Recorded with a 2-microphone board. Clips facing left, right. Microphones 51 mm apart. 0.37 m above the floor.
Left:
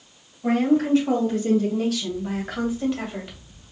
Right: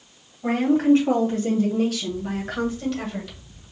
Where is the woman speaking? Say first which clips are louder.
Right 1 dB; 35° right (ahead or behind), 2.5 m; by 3.4 s 20° left (ahead or behind), 1.4 m.